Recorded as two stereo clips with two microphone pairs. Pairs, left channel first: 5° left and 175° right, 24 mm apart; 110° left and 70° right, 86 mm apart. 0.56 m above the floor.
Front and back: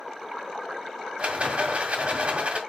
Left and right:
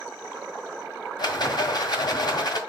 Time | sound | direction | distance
1.2 | a rattle | 145° left | 1.8 m